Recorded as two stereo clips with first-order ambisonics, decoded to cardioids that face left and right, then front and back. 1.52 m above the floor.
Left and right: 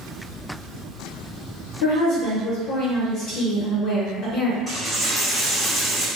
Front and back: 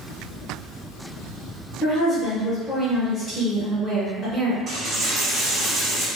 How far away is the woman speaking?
About 1.2 m.